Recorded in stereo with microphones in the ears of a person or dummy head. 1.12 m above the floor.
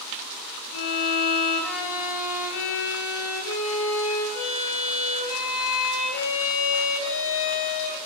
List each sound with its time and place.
0.7 s a violin: 80° left, 7 m